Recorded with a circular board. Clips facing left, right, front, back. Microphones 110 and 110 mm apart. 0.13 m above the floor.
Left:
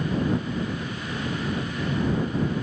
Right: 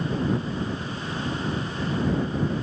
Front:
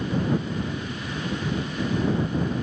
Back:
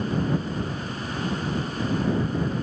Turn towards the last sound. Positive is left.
No sound to turn to.